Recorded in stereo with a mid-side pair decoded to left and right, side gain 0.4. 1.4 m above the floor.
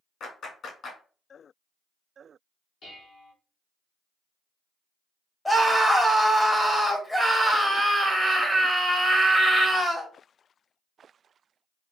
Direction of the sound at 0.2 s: 60° left.